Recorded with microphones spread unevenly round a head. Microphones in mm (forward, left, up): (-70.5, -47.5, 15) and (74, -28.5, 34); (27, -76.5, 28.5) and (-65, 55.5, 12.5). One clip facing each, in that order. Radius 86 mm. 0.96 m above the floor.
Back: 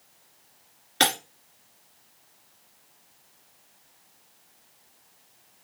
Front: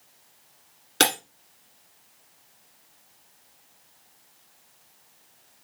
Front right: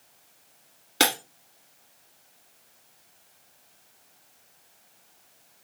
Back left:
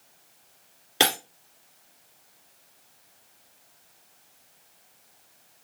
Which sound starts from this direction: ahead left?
Breaking glass, at 1.0 s.